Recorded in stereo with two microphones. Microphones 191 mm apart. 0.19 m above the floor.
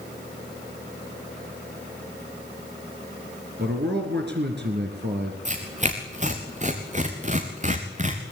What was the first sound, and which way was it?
A man speaking, 65° right (ahead or behind).